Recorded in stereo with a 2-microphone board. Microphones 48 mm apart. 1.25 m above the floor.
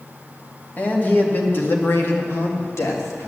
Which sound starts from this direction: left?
A man speaking, at 0.8 s.